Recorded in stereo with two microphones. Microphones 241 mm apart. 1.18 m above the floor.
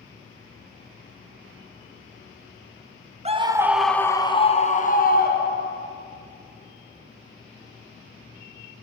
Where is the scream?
25° right (ahead or behind), 0.9 m; by 5.8 s 45° left (ahead or behind), 2 m.